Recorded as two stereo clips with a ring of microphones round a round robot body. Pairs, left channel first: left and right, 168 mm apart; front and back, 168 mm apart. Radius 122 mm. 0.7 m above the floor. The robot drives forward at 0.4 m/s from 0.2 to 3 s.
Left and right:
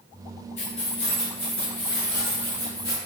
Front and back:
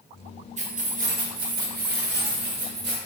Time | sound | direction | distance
0.6 | keys jangling | 140° left | 0.8 m